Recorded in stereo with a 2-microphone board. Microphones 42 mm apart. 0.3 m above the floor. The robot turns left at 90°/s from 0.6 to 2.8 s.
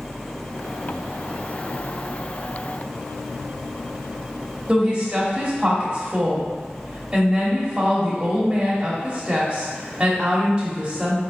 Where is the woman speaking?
25° right (ahead or behind), 0.9 m.